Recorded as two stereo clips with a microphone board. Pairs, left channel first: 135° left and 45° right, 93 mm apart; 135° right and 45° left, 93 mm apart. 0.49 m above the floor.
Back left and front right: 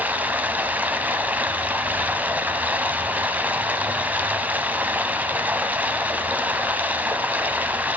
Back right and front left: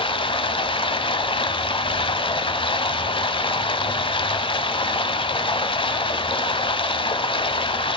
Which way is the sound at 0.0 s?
115° right.